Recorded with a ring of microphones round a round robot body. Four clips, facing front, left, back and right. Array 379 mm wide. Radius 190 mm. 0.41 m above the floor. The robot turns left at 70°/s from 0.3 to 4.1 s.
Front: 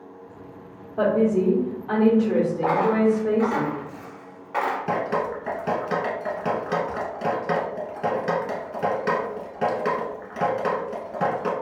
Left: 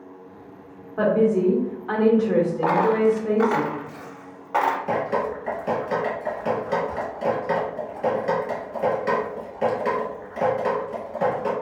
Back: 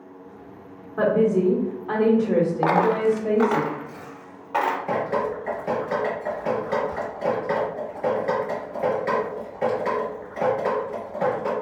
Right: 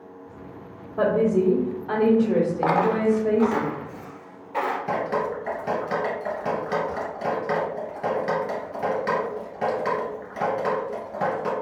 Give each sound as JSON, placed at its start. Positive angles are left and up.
{"t": 1.0, "sound": "a woman speaking", "azimuth_deg": 150, "distance_m": 1.2}
{"t": 2.6, "sound": "a dropped coin", "azimuth_deg": -155, "distance_m": 0.7}
{"t": 4.9, "sound": "dripping", "azimuth_deg": -20, "distance_m": 1.4}